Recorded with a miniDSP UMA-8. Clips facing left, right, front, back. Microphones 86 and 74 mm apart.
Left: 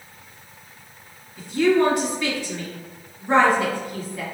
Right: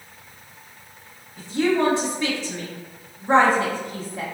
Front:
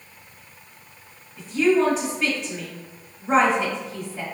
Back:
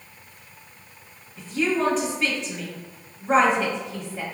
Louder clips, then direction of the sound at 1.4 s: Left 2 dB, front 5 dB; 85° right.